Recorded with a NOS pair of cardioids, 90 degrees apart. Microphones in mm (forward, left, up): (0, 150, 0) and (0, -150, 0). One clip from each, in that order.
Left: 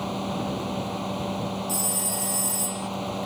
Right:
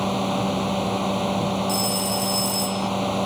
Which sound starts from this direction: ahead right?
A fan, at 0.0 s.